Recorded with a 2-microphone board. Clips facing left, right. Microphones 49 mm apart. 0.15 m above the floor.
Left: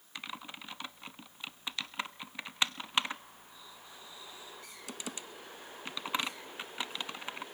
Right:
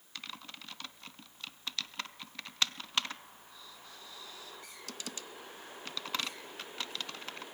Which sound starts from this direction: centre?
Typing on a keyboard, at 0.1 s.